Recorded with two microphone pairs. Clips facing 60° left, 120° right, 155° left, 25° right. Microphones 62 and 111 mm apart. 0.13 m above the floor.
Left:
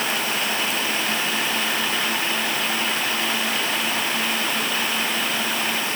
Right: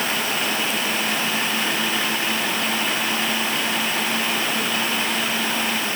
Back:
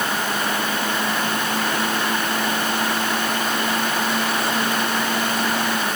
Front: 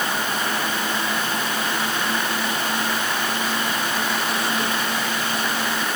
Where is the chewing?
I don't hear chewing.